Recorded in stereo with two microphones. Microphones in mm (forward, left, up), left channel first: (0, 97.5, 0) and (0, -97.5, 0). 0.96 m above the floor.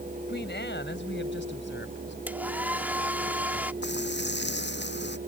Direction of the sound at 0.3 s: 70° left (ahead or behind).